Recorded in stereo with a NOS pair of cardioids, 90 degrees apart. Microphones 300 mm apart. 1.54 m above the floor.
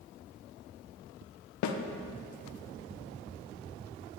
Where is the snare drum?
70° left, 1.0 m.